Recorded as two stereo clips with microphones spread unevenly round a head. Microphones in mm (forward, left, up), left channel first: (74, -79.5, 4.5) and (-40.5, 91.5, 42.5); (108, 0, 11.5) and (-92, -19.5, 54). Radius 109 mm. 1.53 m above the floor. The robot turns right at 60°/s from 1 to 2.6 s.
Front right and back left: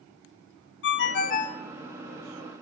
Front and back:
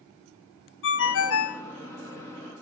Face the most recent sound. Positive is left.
turn(degrees=70)